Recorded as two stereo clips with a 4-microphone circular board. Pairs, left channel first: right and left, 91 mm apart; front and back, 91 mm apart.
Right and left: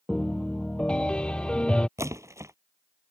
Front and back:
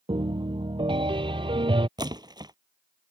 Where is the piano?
170° right.